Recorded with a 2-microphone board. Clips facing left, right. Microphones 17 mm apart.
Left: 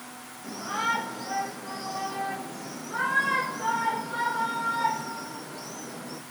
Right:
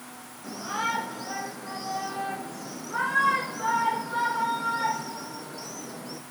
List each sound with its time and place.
0.4 s a shout: 10° right (ahead or behind), 8.5 m; by 6.2 s 35° right (ahead or behind), 8 m